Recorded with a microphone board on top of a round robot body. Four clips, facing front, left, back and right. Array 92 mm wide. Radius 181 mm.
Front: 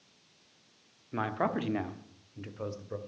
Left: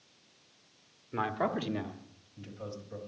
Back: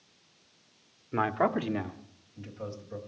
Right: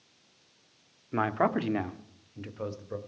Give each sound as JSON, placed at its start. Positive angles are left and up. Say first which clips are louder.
{"t": 1.1, "sound": "a man speaking", "louder": "right 5 dB, back 4 dB", "azimuth_deg": -130, "distance_m": 1.5}